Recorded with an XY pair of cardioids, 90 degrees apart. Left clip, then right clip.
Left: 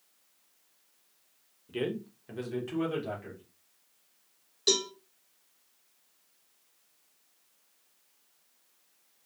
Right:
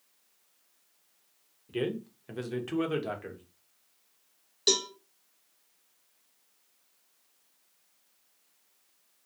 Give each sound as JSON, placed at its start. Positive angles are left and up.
{"t": 1.7, "sound": "a man speaking", "azimuth_deg": -10, "distance_m": 0.8}
{"t": 4.7, "sound": "a cowbell", "azimuth_deg": -35, "distance_m": 1.0}